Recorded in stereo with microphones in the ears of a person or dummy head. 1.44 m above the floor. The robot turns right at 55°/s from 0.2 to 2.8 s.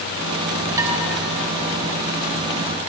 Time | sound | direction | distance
0.8 | dishes clattering | 20° right (ahead or behind) | 4 m